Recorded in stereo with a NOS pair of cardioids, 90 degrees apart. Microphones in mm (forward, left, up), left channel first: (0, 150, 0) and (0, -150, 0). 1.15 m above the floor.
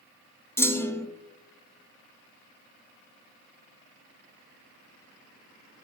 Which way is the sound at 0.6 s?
10° left.